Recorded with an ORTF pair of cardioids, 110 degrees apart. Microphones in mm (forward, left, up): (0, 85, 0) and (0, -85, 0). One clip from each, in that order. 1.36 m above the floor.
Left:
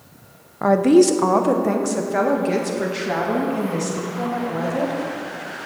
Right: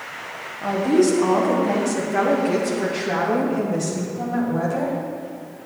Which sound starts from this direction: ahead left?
A woman speaking, at 0.6 s.